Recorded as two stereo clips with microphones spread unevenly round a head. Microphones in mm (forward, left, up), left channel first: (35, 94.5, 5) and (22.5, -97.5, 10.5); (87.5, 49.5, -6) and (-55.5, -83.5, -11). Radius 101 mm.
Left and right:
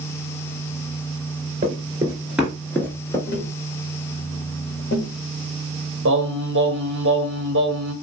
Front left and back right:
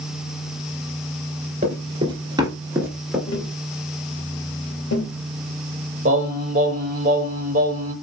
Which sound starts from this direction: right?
Singing, at 6.0 s.